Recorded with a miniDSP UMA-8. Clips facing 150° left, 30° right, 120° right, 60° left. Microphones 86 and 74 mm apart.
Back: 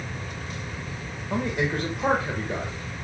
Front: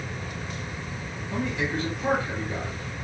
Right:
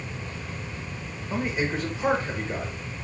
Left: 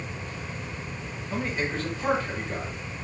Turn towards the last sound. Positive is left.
turn(degrees=165)